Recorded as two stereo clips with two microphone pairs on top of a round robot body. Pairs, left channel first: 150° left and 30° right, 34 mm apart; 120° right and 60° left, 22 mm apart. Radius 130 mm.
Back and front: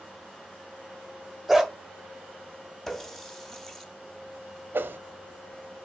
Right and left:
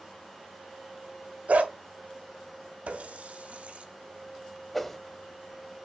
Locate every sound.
1.5 s a dog barking: 55° left, 1.6 m
2.9 s a running tap: 70° left, 1.4 m
4.7 s a whoosh: 35° right, 0.8 m